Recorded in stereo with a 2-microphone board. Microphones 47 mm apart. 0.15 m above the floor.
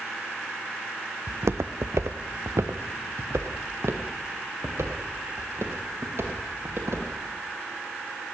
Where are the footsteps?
65° right (ahead or behind), 0.6 m; by 7.1 s 55° right (ahead or behind), 3 m.